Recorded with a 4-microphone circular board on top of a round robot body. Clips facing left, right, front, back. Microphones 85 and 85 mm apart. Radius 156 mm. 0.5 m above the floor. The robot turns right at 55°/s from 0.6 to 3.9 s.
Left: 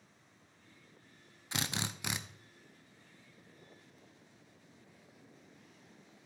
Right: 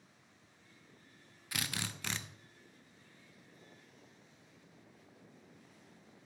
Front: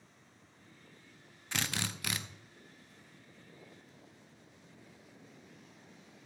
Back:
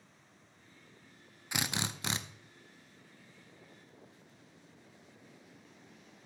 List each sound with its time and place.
1.5 s a drill: 115° left, 0.8 m; by 2.2 s 155° left, 0.8 m